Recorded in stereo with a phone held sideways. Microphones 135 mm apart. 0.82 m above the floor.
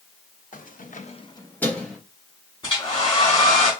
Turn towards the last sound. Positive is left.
turn(degrees=40)  # may be behind; listen again after turning